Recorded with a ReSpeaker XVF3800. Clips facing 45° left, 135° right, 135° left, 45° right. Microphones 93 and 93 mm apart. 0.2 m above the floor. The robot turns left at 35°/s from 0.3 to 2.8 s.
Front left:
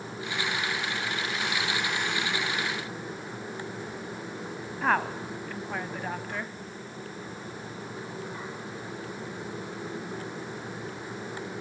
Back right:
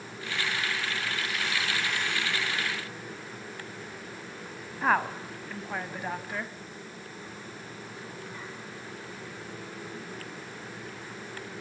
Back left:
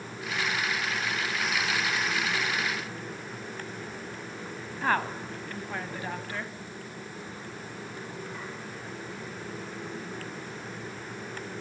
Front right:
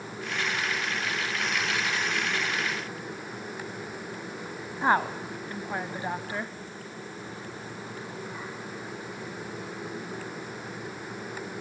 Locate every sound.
4.8 s a woman speaking: 55° right, 1.0 m